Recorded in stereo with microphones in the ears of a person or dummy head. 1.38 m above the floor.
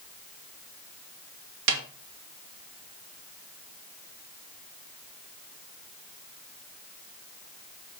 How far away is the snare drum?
About 1.7 m.